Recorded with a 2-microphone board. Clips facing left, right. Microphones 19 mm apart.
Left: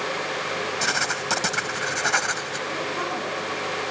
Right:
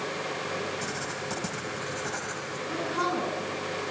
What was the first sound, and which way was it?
Writing, 75° left (ahead or behind).